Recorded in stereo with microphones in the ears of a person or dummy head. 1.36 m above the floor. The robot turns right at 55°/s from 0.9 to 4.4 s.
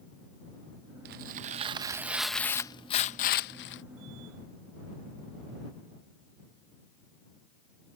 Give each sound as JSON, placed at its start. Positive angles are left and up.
{"t": 1.1, "sound": "tearing paper", "azimuth_deg": -65}